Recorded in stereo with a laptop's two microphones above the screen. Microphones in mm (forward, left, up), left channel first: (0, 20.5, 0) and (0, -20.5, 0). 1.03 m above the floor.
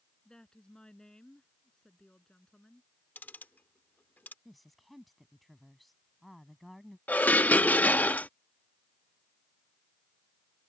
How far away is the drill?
I don't hear a drill.